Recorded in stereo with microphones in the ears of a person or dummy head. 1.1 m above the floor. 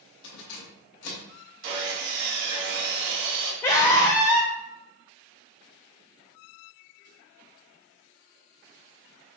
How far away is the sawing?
About 1.4 m.